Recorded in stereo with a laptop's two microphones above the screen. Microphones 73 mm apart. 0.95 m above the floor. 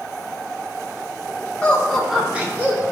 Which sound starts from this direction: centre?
Laughter, at 1.6 s.